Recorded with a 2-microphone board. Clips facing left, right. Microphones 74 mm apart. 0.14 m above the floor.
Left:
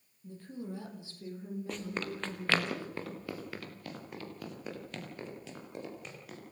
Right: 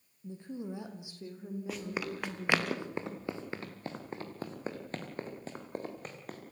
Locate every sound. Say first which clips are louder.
0.2 s a woman speaking: right 2 dB; 20° right (ahead or behind), 4 m; by 2.7 s 10° right (ahead or behind), 7 m
1.7 s running footsteps: right 1 dB; 5° right (ahead or behind), 3 m; by 6.4 s 45° right (ahead or behind), 6 m